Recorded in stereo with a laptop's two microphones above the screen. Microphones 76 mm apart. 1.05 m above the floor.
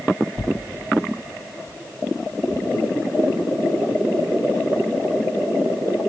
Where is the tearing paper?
40° left (ahead or behind), 0.6 m.